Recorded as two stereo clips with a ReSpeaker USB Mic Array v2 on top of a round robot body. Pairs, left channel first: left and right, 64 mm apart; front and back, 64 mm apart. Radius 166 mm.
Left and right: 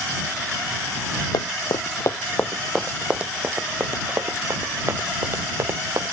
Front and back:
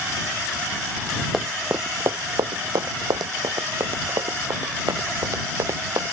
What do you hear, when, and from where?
1.3 s running footsteps: 95° left; by 6.1 s 140° right